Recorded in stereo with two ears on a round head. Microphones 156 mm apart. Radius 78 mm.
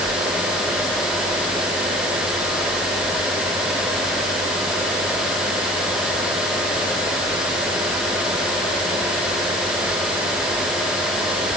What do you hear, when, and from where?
Only background noise.